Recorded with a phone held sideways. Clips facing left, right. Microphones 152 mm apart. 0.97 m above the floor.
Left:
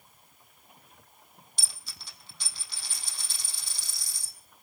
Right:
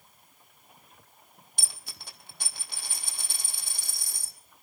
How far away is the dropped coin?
About 3 m.